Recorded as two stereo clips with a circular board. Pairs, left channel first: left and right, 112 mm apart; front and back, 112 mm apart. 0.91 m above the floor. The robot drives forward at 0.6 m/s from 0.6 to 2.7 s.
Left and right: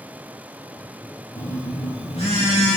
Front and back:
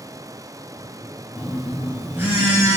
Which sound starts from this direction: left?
A phone buzzing, at 1.4 s.